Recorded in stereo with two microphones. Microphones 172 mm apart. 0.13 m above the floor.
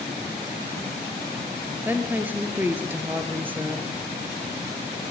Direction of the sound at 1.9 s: 10° right (ahead or behind).